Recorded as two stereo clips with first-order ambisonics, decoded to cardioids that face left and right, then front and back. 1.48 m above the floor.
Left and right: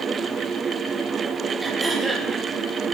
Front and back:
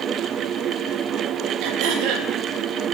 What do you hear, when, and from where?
1.6 s throat clearing: 170° right, 1.9 m